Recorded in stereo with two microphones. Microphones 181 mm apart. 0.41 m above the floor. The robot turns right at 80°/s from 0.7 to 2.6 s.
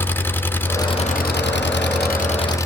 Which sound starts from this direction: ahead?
An engine running, at 0.0 s.